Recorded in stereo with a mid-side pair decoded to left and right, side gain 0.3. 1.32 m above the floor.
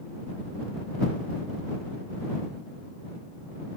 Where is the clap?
I don't hear a clap.